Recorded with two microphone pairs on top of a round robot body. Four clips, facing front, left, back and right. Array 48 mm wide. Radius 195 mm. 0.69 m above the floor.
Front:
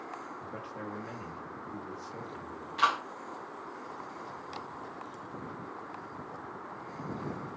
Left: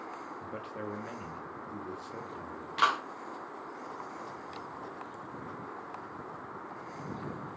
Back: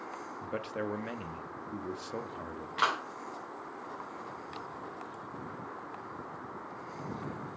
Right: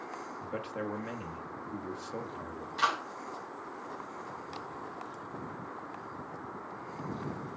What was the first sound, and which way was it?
A man speaking, 160° right.